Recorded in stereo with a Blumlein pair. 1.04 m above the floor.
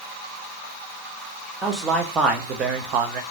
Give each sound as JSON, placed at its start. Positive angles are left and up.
{"t": 1.6, "sound": "a man speaking", "azimuth_deg": -15, "distance_m": 1.5}